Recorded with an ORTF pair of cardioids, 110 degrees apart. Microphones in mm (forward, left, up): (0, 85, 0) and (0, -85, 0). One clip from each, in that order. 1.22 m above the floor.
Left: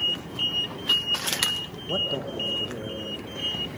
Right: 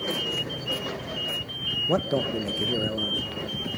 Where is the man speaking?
40° right, 1.2 m.